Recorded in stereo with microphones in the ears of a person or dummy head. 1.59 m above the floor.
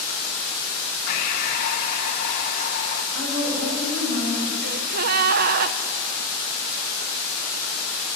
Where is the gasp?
55° right (ahead or behind), 0.9 m.